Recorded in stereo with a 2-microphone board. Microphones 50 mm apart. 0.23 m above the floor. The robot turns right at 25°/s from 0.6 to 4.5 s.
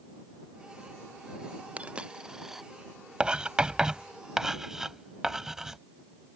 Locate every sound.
1.8 s a dropped coin: 25° right (ahead or behind); by 2.6 s centre (ahead or behind)
3.2 s writing: 20° right (ahead or behind); by 5.8 s 10° right (ahead or behind)